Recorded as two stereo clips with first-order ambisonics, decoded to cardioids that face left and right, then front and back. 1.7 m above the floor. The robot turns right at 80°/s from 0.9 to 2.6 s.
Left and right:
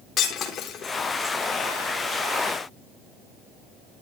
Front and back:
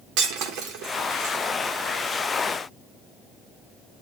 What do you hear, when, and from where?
0.2 s breaking glass: 150° left, 4 m; by 1.4 s 175° right, 4 m